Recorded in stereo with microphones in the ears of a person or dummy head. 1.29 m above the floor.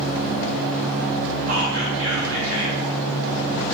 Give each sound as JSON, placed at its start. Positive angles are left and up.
{"t": 1.5, "sound": "whispering", "side_deg": -70, "distance_m": 0.7}